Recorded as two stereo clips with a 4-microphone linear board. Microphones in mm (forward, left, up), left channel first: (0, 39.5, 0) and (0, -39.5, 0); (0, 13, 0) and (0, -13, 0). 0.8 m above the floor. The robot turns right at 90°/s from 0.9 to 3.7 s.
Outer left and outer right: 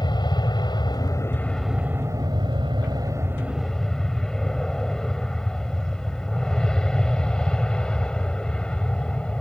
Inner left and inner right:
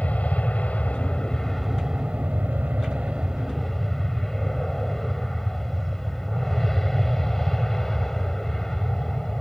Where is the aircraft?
60° left (ahead or behind); by 9.4 s 15° left (ahead or behind).